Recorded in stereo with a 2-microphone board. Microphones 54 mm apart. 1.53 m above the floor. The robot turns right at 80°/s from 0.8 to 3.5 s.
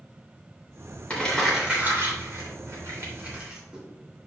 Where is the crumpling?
25° left (ahead or behind), 3 m; by 3.8 s 15° right (ahead or behind), 3 m.